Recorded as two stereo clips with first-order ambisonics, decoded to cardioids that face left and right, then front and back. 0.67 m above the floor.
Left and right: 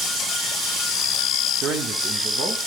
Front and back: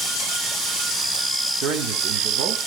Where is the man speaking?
145° right, 1.3 m.